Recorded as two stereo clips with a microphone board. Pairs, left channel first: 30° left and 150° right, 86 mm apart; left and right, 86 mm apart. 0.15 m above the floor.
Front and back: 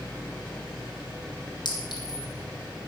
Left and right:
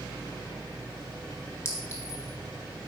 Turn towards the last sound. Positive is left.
turn(degrees=40)